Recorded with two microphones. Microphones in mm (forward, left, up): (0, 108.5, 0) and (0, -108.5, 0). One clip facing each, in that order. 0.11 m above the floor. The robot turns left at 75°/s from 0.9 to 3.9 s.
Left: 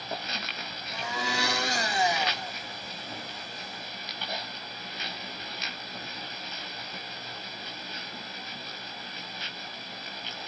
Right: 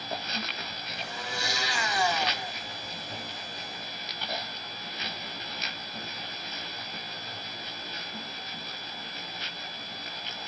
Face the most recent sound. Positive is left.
turn(degrees=-120)